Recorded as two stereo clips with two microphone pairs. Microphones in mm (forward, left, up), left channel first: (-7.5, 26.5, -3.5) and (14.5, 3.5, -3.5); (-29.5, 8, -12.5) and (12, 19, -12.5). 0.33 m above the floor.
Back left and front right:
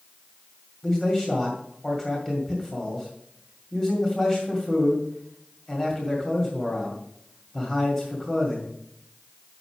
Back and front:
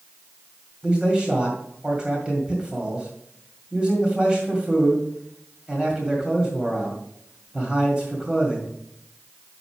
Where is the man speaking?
75° left, 2 m.